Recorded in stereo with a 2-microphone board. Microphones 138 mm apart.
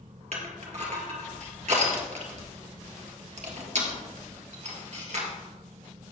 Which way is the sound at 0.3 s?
55° right (ahead or behind).